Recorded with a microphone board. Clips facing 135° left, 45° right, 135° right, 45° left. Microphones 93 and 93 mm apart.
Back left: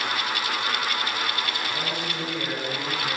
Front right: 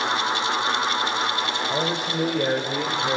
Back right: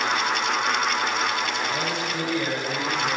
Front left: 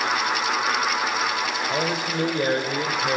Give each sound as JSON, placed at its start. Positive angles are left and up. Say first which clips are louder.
{"t": 1.7, "sound": "a man speaking", "louder": "front right 5 dB, front left 2 dB", "azimuth_deg": -10, "distance_m": 5.5}